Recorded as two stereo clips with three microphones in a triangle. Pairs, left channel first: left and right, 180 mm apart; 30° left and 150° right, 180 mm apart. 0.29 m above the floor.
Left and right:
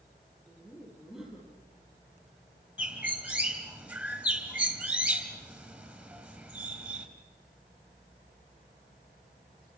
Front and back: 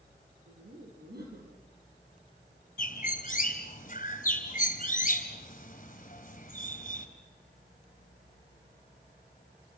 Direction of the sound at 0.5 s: Straight behind.